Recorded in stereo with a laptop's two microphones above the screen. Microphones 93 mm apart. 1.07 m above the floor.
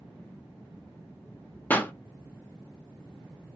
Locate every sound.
1.7 s a pop: 20° left (ahead or behind), 0.7 m